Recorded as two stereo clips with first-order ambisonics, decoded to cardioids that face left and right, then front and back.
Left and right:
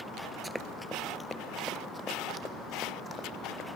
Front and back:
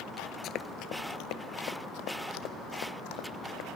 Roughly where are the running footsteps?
Ahead.